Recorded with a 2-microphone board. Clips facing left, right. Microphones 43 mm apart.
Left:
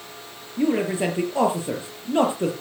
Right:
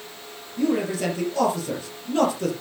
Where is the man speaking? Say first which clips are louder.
Left 1 dB; 25° left (ahead or behind), 4 m.